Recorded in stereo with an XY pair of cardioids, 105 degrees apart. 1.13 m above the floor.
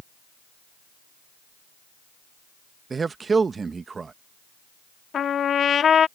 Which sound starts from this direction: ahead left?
A trumpet, at 5.1 s.